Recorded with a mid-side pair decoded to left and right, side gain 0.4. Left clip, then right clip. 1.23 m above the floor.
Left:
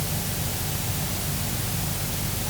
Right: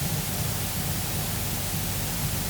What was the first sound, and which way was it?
Only background noise.